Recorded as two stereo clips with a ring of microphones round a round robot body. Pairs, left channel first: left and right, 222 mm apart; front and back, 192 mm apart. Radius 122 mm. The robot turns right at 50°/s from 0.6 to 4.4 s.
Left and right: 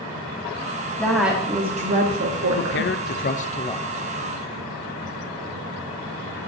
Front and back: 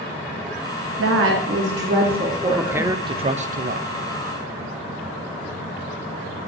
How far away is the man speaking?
About 0.9 m.